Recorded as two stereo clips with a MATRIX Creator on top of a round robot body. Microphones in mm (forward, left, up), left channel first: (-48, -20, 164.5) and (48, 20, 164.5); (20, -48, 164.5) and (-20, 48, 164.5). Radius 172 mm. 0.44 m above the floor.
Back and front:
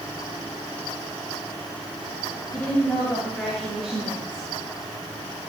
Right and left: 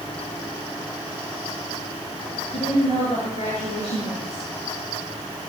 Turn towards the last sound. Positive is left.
turn(degrees=-60)